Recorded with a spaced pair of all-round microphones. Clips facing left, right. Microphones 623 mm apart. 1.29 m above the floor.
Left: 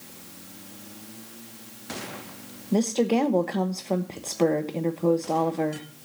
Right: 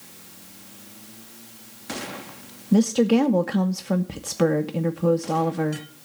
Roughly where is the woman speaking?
Right.